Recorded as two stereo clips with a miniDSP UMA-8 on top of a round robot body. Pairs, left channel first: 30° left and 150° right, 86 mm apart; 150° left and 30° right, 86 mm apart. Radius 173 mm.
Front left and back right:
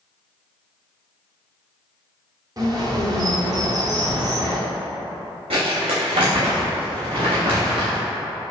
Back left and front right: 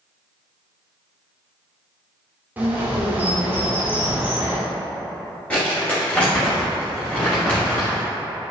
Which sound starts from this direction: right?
A bird, at 2.6 s.